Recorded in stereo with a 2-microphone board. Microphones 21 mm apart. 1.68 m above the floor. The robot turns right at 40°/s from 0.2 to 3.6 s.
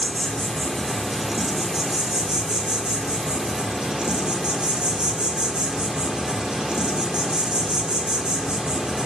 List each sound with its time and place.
0.0 s an insect: 140° left, 1.6 m; by 9.1 s 85° right, 1.6 m